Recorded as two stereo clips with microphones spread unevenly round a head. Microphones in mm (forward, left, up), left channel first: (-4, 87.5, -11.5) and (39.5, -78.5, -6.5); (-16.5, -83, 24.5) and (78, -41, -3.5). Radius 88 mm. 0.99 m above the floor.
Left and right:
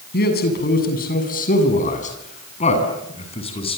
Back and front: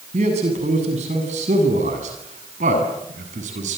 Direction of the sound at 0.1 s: 70° left.